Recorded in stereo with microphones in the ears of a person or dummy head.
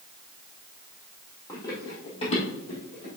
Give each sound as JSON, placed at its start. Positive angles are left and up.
{"t": 1.5, "sound": "running footsteps", "side_deg": 15, "distance_m": 2.5}